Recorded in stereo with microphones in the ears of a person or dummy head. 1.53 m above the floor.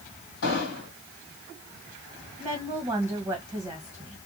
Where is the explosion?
60° left (ahead or behind), 2.5 m.